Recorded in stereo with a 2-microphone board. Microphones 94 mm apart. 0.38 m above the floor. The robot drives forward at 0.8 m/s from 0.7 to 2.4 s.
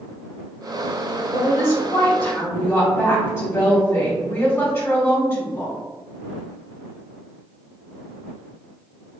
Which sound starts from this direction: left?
A woman speaking, at 1.3 s.